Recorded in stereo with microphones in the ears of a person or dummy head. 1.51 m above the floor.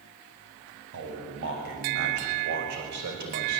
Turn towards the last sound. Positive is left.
turn(degrees=-55)  # may be behind; listen again after turning